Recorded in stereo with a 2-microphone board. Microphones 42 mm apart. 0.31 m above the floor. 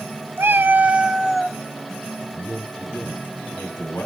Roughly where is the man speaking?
Left.